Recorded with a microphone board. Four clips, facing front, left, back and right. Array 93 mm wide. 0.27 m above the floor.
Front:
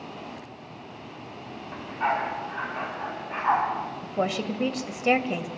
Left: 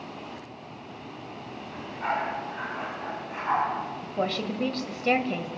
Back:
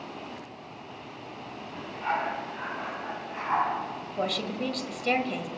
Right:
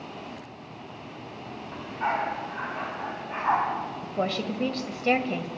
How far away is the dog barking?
About 9 m.